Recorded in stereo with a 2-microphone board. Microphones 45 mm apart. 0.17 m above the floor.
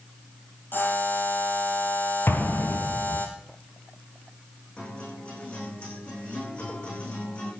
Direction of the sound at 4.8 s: 30° left (ahead or behind).